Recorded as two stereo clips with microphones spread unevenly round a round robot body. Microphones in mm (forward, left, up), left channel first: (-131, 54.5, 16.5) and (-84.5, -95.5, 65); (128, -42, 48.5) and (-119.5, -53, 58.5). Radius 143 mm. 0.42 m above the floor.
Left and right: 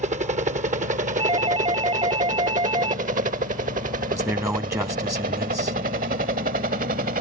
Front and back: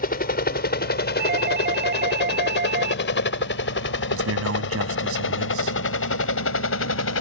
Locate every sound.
0.0 s a helicopter: 25° right; by 7.2 s 20° right
1.2 s a doorbell: 125° right
4.1 s a man speaking: 150° right